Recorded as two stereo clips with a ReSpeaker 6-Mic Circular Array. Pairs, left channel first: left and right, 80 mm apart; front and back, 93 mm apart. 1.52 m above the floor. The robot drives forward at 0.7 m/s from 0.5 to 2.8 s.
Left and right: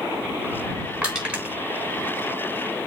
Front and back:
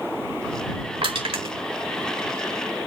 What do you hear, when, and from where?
1.0 s crushing: 165° right, 3.5 m; by 1.5 s 170° right, 4 m